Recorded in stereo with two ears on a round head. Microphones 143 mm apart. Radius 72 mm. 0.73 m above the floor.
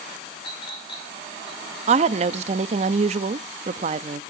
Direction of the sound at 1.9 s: 40° right (ahead or behind).